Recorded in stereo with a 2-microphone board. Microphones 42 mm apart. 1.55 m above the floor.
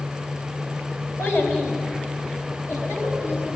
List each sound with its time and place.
1.2 s a child speaking: 60° left (ahead or behind), 4.5 m; by 3.6 s 65° left (ahead or behind), 7.5 m